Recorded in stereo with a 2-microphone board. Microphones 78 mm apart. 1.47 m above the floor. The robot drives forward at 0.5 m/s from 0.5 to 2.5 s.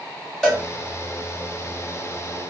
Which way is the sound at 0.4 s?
5° left (ahead or behind).